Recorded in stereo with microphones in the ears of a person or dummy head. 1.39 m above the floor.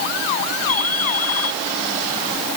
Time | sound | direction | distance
0.7 | a ringtone | 55° left (ahead or behind) | ?